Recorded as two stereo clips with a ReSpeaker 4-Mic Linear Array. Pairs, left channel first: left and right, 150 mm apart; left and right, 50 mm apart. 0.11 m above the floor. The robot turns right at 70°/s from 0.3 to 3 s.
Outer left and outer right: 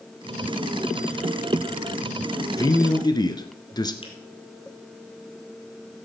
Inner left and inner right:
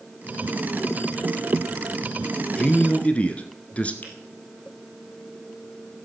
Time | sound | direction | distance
2.6 | a man speaking | 25° left (ahead or behind) | 1.1 m
4.0 | a finger snap | 35° left (ahead or behind) | 2.5 m